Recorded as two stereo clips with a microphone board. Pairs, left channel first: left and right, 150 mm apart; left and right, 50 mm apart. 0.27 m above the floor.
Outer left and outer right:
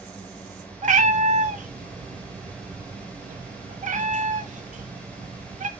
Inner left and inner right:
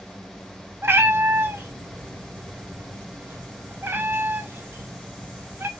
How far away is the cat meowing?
About 0.6 m.